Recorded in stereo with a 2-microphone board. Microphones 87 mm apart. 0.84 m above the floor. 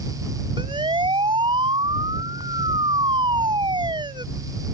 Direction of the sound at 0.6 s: 85° right.